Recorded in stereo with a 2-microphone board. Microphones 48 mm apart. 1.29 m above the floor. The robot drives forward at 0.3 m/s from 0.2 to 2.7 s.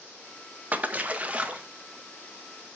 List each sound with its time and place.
0.7 s a splash: 35° right (ahead or behind), 1.2 m; by 1.6 s 30° right (ahead or behind), 1.5 m